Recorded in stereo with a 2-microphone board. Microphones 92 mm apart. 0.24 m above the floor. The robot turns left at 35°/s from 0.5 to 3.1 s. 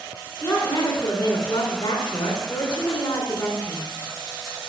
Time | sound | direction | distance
0.4 | a woman speaking | 155° left | 2.5 m